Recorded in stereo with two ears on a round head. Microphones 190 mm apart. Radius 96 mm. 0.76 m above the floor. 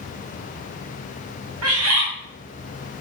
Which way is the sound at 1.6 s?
75° right (ahead or behind).